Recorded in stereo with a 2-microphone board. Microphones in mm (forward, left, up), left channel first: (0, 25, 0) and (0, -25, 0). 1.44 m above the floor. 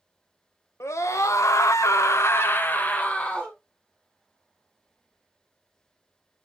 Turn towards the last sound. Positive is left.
turn(degrees=20)  # may be behind; listen again after turning